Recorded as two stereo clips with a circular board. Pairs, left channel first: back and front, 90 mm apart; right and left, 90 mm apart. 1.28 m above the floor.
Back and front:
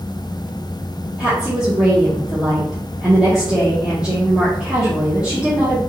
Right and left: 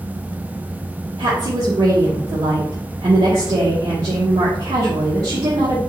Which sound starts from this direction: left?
A woman speaking, at 1.2 s.